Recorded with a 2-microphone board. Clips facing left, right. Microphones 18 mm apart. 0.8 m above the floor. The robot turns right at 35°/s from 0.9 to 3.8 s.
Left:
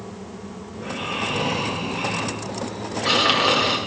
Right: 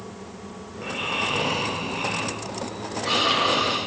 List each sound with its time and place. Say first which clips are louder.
0.7 s snoring: right 1 dB; 35° right, 1.9 m; by 3.8 s 65° left, 1.9 m